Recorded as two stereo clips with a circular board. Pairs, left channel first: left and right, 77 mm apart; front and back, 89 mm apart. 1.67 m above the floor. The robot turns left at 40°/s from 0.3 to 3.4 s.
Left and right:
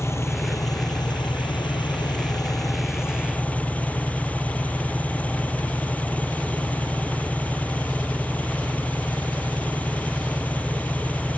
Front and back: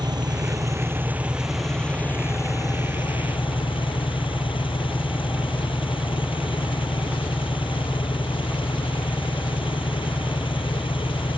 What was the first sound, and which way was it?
An engine running, 140° left.